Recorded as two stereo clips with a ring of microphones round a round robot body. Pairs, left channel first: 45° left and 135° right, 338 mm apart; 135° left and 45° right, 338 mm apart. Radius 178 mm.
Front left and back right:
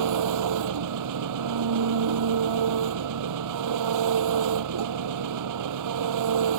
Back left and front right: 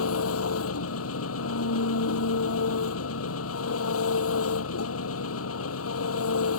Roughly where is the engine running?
Behind.